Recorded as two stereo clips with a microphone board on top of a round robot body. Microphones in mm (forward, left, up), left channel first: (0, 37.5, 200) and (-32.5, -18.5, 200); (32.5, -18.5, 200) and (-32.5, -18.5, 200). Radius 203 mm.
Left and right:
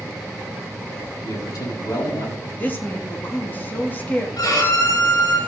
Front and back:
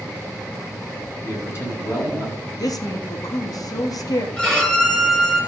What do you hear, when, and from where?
1.2 s a man speaking: 55° left, 6.5 m
2.6 s a woman speaking: straight ahead, 2 m
4.4 s a violin: 75° left, 7.5 m